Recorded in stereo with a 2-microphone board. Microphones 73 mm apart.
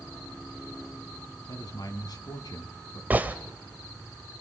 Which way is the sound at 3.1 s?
25° right (ahead or behind).